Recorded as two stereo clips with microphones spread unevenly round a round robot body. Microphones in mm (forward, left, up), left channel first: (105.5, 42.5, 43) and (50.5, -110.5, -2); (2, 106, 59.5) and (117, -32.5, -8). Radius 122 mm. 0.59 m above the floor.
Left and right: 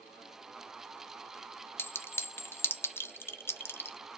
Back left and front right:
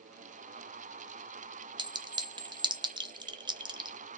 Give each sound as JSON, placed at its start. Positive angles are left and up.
{"t": 1.8, "sound": "a clink", "azimuth_deg": -20, "distance_m": 0.7}